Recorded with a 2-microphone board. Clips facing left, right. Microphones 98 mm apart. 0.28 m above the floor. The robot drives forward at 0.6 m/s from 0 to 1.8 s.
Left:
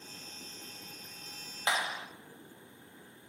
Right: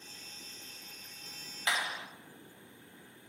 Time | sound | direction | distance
1.7 | a clap | 30° left (ahead or behind) | 0.9 m